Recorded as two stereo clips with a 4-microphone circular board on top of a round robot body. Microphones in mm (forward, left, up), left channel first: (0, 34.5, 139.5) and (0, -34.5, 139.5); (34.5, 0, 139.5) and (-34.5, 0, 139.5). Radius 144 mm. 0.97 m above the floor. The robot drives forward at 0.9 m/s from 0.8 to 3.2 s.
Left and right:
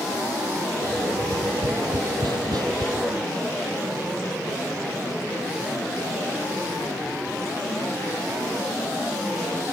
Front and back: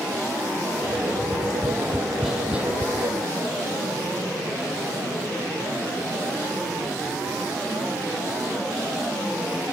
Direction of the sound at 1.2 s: 60° right.